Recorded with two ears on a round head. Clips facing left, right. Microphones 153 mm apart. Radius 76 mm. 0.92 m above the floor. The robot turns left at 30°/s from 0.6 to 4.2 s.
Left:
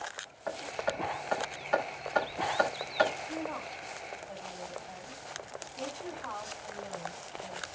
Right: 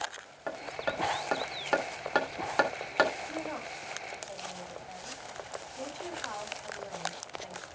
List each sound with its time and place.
0.5 s hammering: 35° right (ahead or behind), 3 m; by 3.1 s 70° right (ahead or behind), 3 m
3.3 s a woman speaking: 35° right (ahead or behind), 8 m; by 7.7 s 10° right (ahead or behind), 8 m